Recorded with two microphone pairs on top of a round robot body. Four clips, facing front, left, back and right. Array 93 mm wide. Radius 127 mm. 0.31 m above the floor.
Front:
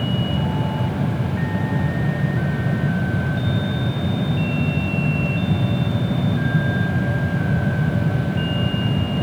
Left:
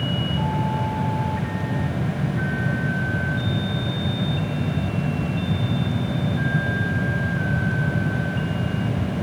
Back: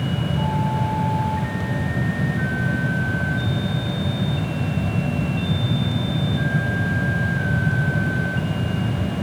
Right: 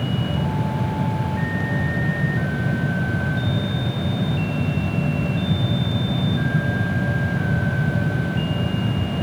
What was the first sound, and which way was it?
Only background noise.